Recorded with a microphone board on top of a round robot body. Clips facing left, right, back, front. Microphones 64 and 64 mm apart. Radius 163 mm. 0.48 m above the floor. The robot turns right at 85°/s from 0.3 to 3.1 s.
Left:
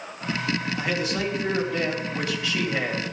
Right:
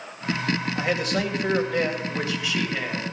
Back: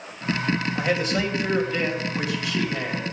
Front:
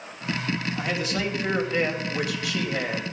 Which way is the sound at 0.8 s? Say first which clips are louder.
Right 2 dB, back 4 dB; 155° right.